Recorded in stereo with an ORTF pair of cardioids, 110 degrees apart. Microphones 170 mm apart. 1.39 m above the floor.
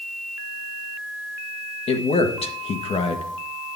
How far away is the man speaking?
About 1.5 m.